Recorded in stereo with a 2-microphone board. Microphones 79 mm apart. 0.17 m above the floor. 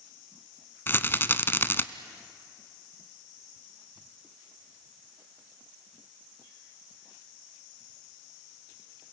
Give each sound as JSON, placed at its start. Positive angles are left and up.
{"t": 0.9, "sound": "a rattle", "side_deg": 30, "distance_m": 0.6}